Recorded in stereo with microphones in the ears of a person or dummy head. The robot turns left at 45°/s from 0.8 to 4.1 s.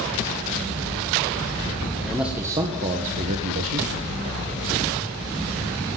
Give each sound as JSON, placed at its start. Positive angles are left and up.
{"t": 2.0, "sound": "a man speaking", "azimuth_deg": 0, "distance_m": 1.7}